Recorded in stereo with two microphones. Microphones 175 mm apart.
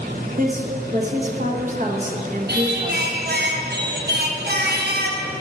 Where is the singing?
70° right (ahead or behind), 1.2 m.